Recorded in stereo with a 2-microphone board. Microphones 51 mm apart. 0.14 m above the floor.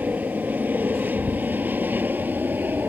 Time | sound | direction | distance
0.0 | an aircraft | 30° right (ahead or behind) | ?